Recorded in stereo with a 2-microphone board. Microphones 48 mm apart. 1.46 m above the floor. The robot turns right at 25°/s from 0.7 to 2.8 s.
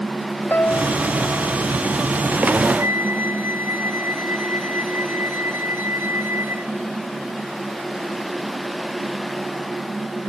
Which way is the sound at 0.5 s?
40° left (ahead or behind).